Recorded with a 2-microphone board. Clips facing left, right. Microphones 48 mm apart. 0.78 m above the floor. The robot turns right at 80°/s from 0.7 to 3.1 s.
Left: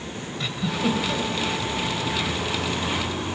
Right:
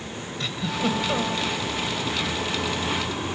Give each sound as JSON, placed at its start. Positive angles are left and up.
{"t": 0.4, "sound": "a giggle", "azimuth_deg": 175, "distance_m": 2.0}